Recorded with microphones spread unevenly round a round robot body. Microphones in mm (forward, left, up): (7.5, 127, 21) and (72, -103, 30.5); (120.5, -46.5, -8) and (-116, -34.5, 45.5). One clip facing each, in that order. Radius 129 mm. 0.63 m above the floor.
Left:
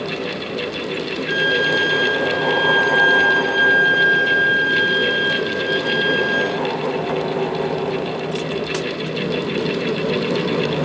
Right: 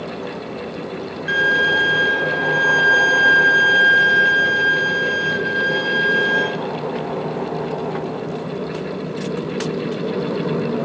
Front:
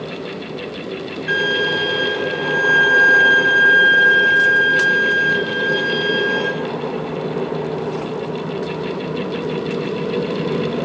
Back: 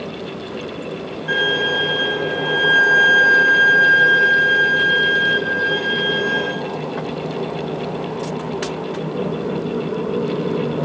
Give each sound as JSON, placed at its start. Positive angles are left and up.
{"t": 1.3, "sound": "a violin", "azimuth_deg": -55, "distance_m": 3.0}